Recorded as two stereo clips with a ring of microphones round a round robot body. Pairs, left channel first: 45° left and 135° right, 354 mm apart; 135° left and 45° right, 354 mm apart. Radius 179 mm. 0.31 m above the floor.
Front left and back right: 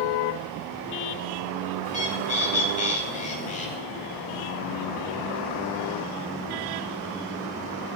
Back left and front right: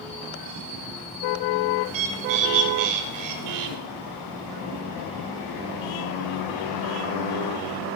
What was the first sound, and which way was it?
A bird, 25° right.